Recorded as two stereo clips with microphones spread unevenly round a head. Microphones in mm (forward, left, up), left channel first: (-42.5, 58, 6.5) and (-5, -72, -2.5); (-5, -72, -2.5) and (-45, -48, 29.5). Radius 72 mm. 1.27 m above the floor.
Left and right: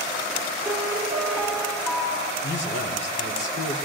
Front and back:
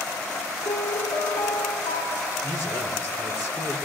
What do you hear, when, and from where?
0.7 s a piano: 10° left, 1.3 m
2.4 s a man speaking: 90° left, 3 m